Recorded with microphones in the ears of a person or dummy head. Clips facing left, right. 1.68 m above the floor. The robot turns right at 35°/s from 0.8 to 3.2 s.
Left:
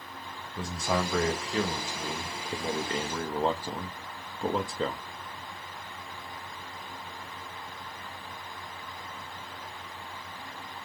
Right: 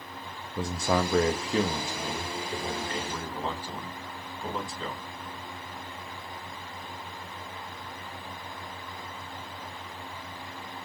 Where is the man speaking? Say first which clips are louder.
Right 3 dB; 50° right, 0.6 m; by 5.0 s 35° left, 0.6 m.